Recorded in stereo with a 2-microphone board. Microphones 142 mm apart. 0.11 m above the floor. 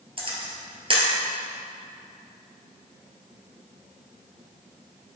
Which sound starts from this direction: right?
A camera shutter, at 0.2 s.